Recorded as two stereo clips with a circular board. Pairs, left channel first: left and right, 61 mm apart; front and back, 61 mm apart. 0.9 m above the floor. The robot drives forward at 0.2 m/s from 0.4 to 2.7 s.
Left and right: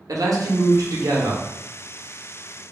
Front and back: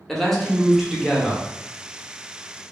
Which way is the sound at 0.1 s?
85° right.